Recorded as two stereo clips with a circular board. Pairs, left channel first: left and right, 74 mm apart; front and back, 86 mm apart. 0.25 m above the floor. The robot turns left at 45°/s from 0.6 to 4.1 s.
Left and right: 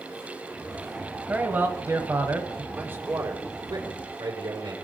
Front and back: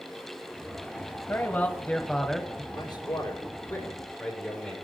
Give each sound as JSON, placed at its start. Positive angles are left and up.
{"t": 1.3, "sound": "a man speaking", "azimuth_deg": -40, "distance_m": 1.3}
{"t": 2.7, "sound": "a man speaking", "azimuth_deg": -20, "distance_m": 7.0}